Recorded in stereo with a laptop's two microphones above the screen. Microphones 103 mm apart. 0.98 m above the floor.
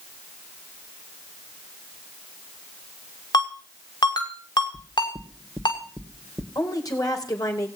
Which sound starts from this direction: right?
Knocking, at 4.7 s.